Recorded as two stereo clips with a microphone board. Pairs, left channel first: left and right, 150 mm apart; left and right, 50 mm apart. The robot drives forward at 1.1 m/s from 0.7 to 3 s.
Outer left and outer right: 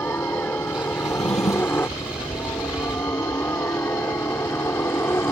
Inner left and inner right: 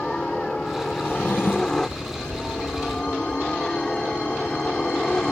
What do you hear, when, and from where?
0.0 s a helicopter: 15° left (ahead or behind)
1.0 s a drawer: 50° left (ahead or behind); by 1.9 s 45° left (ahead or behind)